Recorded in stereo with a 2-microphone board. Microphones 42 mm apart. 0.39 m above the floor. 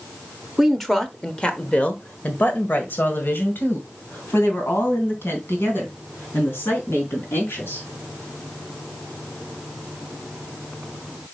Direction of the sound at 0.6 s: Centre (ahead or behind).